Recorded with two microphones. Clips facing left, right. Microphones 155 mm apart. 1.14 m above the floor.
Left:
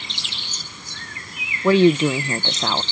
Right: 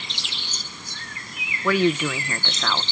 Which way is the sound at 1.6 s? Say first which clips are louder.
Left 6 dB; 25° left (ahead or behind).